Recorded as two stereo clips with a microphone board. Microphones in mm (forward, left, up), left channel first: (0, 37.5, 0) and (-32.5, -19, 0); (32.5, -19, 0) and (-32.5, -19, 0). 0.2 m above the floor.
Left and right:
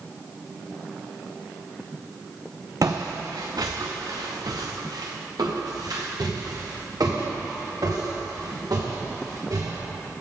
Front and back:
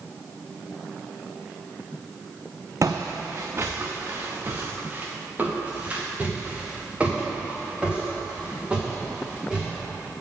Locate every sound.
2.8 s footsteps: 145° right, 1.0 m; by 9.8 s 105° right, 4.5 m